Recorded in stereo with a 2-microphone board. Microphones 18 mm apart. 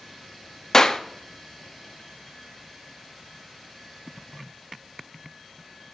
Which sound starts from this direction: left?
A clap, at 0.7 s.